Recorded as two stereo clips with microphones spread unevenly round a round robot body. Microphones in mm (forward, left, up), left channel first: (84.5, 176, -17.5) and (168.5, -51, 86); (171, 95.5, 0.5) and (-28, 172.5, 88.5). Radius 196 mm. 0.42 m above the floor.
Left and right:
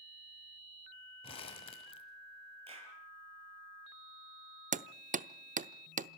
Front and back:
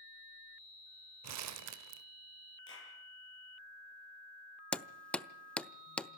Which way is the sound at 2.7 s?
5° right.